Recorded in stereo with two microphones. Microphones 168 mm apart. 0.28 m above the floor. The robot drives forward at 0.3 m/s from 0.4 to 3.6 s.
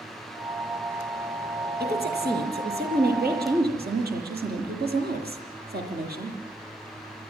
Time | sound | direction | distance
1.8 | a woman speaking | 75° right (ahead or behind) | 8 m